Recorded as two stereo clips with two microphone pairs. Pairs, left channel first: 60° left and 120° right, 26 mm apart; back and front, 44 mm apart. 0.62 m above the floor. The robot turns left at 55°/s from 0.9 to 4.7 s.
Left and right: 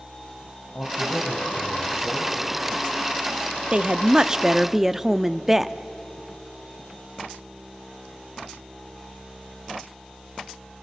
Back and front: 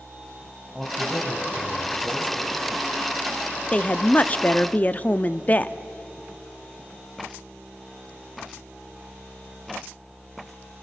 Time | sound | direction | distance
0.7 | a man speaking | 85° left | 4 m
3.7 | a woman speaking | 140° right | 0.6 m